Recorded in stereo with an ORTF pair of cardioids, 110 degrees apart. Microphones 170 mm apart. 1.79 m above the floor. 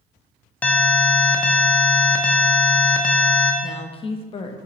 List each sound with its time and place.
0.6 s an alarm: 10° left, 0.5 m
3.6 s a woman speaking: 35° left, 0.6 m